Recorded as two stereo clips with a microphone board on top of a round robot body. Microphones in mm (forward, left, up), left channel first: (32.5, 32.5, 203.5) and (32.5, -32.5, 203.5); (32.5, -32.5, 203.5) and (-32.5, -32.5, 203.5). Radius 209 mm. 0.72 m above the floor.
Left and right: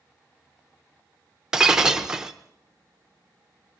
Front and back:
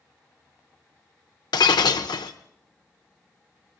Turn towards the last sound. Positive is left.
turn(degrees=-10)